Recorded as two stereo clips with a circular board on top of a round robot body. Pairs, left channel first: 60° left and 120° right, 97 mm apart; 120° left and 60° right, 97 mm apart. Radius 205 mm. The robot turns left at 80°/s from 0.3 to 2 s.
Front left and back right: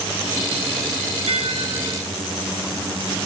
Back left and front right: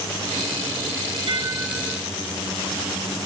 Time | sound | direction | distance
1.3 | dishes clattering | 100° right | 1.3 m